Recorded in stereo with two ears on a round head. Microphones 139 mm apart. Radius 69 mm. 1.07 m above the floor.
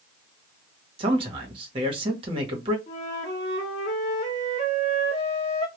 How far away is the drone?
No drone in this recording.